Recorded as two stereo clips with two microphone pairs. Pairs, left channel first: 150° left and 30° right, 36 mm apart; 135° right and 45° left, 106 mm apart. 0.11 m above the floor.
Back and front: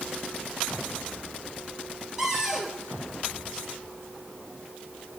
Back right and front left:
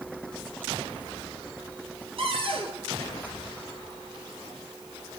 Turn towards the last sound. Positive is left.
turn(degrees=40)